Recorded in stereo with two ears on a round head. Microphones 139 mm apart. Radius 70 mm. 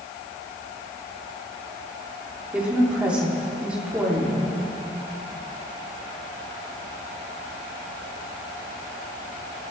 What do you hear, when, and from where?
2.5 s a woman speaking: 10° right (ahead or behind), 3 m